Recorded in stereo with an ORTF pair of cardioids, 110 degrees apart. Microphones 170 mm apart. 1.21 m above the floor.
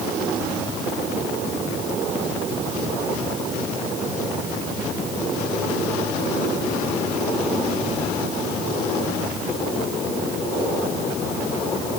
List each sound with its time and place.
Only background noise.